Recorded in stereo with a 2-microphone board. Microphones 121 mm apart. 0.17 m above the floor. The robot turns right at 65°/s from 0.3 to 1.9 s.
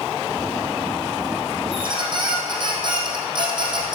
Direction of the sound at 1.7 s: 50° right (ahead or behind).